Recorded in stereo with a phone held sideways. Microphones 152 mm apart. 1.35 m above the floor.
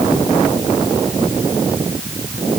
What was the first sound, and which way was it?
Only background noise.